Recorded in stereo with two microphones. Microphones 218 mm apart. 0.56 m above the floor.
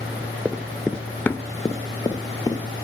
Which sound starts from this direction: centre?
Running footsteps, at 0.5 s.